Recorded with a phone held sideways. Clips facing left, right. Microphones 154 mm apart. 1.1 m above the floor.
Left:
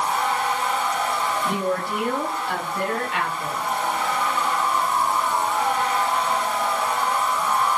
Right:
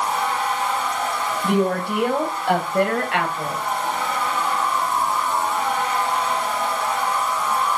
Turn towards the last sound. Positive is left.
turn(degrees=-85)